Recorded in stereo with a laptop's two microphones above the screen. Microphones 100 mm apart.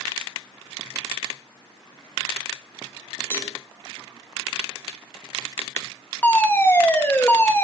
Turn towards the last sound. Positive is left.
turn(degrees=20)  # may be behind; listen again after turning